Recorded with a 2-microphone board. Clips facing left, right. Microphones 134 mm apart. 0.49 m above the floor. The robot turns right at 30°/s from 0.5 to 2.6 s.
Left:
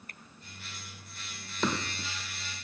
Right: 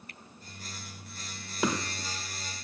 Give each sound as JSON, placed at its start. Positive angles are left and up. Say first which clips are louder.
{"t": 0.1, "sound": "a finger snap", "louder": "right 1 dB", "side_deg": 45}
{"t": 1.6, "sound": "hammering", "louder": "right 1 dB", "side_deg": -10}